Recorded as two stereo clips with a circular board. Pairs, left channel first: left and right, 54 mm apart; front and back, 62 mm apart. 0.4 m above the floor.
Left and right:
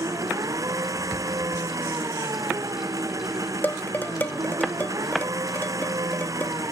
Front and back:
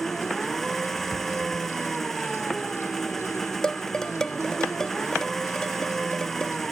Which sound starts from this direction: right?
An engine running, at 0.0 s.